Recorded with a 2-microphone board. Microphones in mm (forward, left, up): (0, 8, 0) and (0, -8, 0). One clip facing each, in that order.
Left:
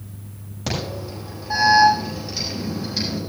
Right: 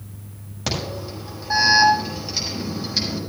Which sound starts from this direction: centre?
An alarm, at 0.7 s.